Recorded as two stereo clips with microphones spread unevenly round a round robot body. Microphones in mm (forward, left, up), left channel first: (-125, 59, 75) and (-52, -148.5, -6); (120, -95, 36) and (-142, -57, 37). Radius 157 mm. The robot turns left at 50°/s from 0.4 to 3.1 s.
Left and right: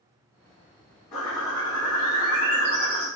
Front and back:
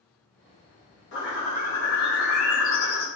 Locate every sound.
1.1 s a bird: 35° left, 0.8 m; by 3.1 s 60° right, 0.8 m